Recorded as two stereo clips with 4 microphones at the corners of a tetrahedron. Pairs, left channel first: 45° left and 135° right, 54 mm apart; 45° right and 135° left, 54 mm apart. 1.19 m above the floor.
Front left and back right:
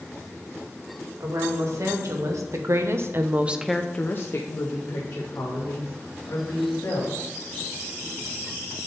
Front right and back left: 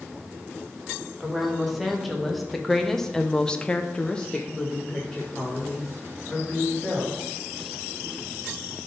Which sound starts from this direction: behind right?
A woman speaking, at 1.2 s.